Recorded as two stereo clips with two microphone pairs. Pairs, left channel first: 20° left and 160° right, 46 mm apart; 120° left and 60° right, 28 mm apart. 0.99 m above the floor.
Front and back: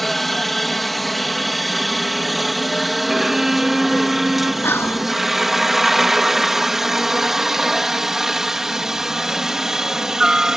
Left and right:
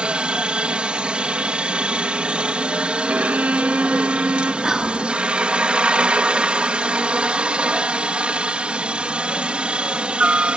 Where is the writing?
No writing in this recording.